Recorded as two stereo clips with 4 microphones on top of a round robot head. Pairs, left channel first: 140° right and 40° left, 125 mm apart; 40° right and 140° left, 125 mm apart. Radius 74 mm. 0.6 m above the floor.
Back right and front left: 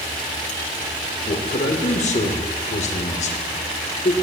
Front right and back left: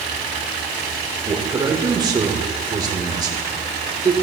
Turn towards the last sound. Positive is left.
turn(degrees=-160)